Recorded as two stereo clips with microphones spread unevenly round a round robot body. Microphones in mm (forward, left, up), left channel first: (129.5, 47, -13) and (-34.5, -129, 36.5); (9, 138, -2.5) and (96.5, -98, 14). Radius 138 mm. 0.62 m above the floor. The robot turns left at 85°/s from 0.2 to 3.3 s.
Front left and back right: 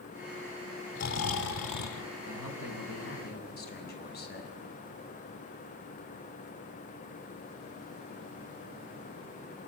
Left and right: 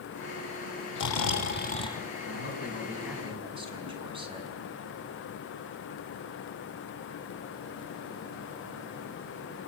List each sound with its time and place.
0.9 s snoring: 115° left, 2.5 m; by 2.0 s 20° left, 2.5 m
2.3 s a man speaking: 90° left, 5.5 m; by 4.5 s straight ahead, 5.5 m